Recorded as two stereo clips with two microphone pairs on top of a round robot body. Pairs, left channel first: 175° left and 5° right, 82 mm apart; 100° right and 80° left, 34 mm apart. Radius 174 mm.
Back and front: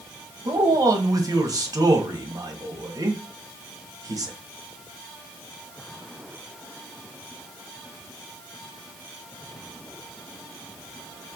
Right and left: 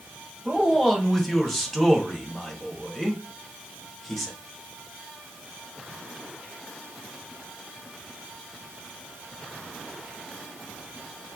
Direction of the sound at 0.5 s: 15° right.